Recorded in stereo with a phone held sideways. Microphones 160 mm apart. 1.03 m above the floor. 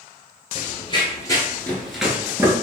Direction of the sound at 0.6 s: 40° left (ahead or behind).